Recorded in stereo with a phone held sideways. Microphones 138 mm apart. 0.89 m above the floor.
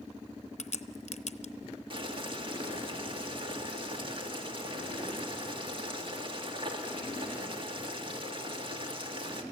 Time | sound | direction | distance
0.6 | a crack | 55° left (ahead or behind) | 0.7 m
1.9 | boiling | 40° right (ahead or behind) | 1.9 m